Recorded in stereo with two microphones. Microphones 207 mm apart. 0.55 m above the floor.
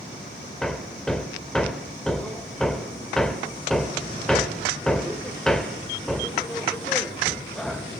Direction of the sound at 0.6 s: 5° left (ahead or behind).